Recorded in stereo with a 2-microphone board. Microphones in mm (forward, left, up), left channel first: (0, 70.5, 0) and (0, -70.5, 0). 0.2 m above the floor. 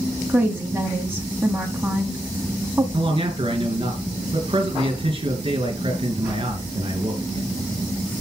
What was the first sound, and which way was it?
A woman speaking, 15° right (ahead or behind).